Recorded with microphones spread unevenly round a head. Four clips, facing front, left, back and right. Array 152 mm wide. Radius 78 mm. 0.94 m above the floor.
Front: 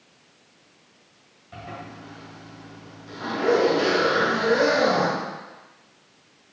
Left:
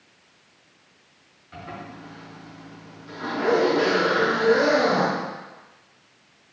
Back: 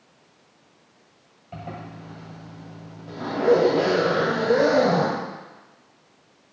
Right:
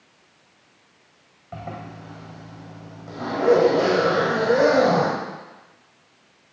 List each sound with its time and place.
1.5 s a zipper: 115° right, 2.0 m